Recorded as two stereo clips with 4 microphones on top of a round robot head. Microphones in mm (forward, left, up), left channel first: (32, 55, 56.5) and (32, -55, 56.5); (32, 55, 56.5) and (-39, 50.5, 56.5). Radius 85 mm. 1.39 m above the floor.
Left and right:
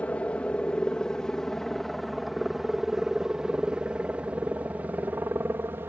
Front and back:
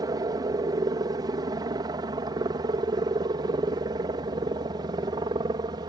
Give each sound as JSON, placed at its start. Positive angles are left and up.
{"t": 0.0, "sound": "a helicopter", "azimuth_deg": 170}